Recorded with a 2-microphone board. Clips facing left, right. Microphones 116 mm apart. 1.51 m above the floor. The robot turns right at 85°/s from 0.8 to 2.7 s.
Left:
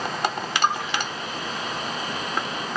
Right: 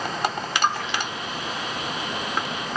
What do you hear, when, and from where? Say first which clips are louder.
0.6 s a splash: left 1 dB; 15° left (ahead or behind), 2.5 m; by 1.1 s 15° right (ahead or behind), 2.5 m